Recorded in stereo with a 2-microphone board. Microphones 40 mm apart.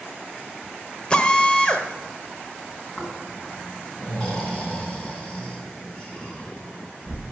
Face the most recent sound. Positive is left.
turn(degrees=20)  # may be behind; listen again after turning